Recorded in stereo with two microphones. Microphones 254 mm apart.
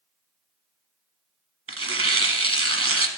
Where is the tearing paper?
55° right (ahead or behind), 0.8 m.